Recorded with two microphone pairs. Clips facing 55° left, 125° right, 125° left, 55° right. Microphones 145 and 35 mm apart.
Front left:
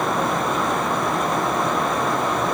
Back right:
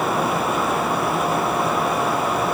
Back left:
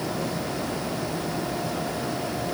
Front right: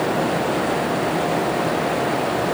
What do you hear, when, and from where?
Only background noise.